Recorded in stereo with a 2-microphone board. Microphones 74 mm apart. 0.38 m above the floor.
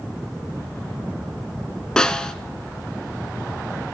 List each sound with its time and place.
2.0 s a snare drum: 10° left (ahead or behind), 1.0 m